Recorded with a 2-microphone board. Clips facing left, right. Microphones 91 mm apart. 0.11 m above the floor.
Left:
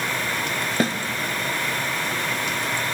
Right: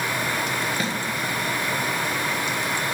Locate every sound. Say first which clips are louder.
0.8 s a snare drum: left 5 dB; 45° left (ahead or behind), 0.7 m